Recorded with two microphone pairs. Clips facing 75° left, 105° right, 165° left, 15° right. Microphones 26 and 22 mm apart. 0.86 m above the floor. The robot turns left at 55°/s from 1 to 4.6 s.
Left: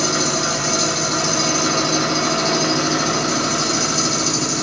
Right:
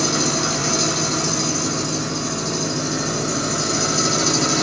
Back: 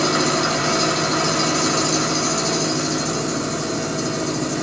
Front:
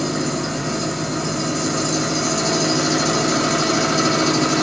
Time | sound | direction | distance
0.0 | an engine running | 165° left | 0.9 m